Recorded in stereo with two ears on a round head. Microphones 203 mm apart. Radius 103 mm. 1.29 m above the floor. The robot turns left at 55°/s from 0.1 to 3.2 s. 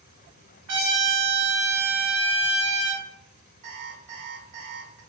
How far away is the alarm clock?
About 1.6 m.